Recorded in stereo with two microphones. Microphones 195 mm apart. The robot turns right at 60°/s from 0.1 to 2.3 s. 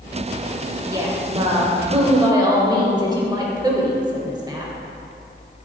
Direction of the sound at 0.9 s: 20° right (ahead or behind).